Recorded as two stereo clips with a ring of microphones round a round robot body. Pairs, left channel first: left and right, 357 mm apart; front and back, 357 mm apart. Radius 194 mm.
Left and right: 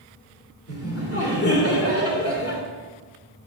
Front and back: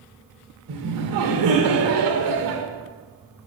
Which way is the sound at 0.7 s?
140° left.